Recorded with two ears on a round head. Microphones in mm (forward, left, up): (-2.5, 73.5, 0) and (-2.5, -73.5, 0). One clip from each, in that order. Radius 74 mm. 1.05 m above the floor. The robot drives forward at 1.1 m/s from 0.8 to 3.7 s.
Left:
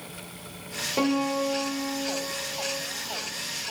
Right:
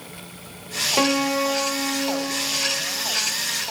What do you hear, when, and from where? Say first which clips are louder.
1.0 s a piano: right 4 dB; 35° right (ahead or behind), 0.9 m; by 2.8 s 25° right (ahead or behind), 1.4 m